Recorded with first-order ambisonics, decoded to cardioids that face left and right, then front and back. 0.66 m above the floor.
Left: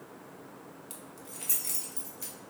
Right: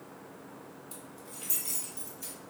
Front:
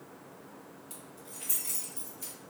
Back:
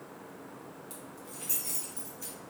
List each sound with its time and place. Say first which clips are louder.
0.9 s keys jangling: even, back 3 dB; 100° left, 1.3 m; by 2.3 s 95° left, 2 m